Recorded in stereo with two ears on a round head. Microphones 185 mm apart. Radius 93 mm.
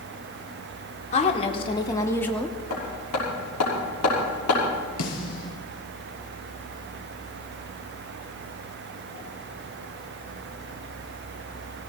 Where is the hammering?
85° left, 6 m.